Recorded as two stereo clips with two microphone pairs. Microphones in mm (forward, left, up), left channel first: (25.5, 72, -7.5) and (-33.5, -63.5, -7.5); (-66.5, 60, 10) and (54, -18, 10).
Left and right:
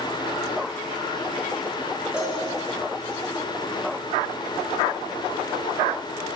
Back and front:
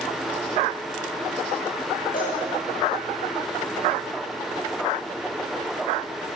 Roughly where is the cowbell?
Behind.